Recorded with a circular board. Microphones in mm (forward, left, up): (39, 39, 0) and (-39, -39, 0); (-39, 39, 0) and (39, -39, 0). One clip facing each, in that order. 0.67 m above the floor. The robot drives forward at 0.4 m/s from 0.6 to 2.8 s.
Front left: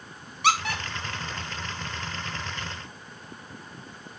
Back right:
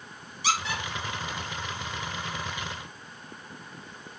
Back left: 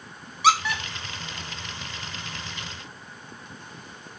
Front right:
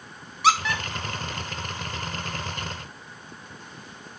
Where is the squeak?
45° left, 0.6 m; by 0.8 s 55° left, 0.5 m.